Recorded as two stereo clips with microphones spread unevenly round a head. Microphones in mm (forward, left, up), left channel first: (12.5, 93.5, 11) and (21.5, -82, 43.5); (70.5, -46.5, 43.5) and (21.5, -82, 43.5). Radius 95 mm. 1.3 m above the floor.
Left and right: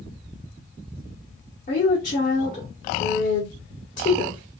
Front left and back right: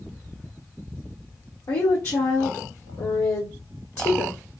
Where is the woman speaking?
55° left, 1.6 m.